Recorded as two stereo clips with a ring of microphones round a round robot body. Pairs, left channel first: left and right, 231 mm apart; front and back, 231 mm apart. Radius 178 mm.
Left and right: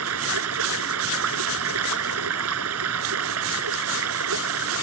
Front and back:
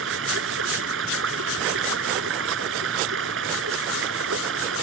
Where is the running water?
130° right.